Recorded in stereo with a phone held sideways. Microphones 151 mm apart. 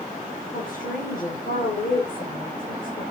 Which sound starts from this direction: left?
A woman speaking, at 0.5 s.